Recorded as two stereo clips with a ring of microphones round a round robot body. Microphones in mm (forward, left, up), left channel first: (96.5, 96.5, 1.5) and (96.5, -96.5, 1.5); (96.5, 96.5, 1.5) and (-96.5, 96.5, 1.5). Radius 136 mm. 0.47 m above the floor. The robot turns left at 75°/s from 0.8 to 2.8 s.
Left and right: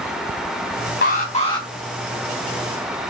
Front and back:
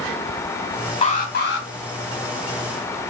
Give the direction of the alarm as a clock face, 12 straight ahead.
10 o'clock.